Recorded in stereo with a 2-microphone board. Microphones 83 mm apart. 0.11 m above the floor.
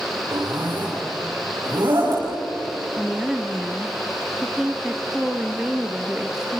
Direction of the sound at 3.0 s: 10° right (ahead or behind).